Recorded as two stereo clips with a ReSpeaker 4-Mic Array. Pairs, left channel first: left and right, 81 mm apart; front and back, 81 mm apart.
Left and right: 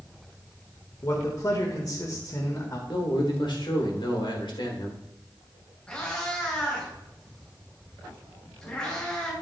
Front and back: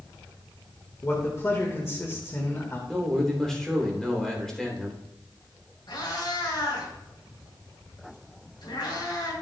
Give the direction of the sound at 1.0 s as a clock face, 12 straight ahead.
10 o'clock.